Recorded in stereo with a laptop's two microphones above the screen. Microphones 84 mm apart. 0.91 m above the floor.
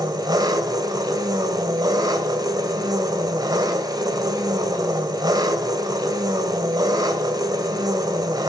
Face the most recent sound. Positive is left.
turn(degrees=-55)  # may be behind; listen again after turning